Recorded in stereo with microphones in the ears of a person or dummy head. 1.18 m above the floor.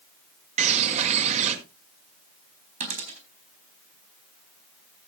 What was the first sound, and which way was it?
A bird, 45° right (ahead or behind).